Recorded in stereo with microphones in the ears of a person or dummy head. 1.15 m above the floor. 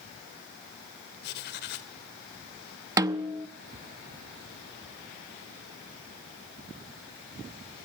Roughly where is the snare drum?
Centre.